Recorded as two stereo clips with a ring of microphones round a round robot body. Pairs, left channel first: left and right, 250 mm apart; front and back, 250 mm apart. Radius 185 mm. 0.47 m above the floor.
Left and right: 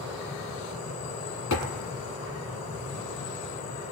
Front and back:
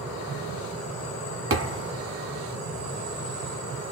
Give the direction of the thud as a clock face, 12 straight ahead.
7 o'clock.